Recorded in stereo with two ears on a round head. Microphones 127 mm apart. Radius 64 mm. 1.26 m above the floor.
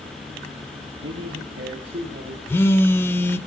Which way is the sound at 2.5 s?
15° left (ahead or behind).